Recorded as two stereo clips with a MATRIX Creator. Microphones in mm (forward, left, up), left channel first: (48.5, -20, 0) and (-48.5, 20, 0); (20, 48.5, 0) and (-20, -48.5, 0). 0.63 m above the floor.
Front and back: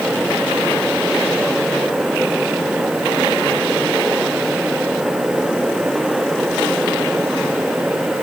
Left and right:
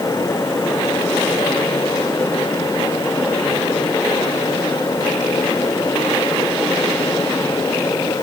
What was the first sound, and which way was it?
Only background noise.